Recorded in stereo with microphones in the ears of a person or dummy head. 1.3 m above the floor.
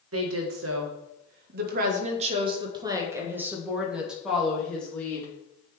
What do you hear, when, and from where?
0.1 s a woman speaking: 75° right (ahead or behind), 1.5 m; by 5.3 s 5° left (ahead or behind), 2 m